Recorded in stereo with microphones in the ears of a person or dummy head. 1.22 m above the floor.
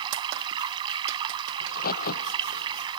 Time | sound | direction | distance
0.0 | running water | 20° right (ahead or behind) | ?
1.6 | a crack | 45° left (ahead or behind) | ?